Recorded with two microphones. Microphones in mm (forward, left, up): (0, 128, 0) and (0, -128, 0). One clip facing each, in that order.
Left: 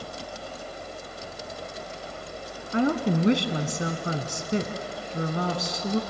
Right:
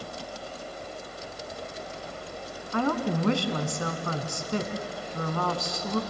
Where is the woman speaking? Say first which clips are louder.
Left 3 dB; 20° left (ahead or behind), 1.3 m.